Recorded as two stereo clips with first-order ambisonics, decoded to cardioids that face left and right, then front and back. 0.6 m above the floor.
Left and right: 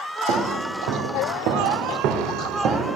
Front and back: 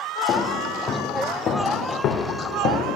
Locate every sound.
0.3 s footsteps: 75° right, 2.5 m; by 3.0 s 40° right, 1.8 m